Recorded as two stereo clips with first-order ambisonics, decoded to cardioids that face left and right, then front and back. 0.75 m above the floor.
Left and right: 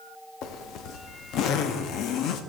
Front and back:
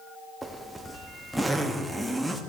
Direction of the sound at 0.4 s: 90° left.